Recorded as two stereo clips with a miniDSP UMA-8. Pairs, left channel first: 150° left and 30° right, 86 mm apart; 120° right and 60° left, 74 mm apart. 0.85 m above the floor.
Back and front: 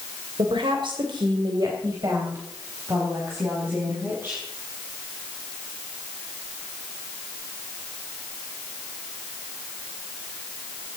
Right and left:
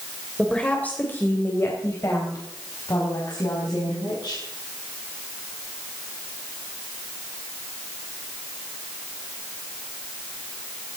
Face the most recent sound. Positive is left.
turn(degrees=-95)